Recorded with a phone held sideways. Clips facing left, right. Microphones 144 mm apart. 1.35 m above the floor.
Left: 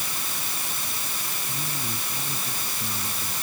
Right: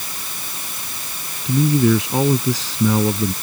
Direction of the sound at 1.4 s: 90° right.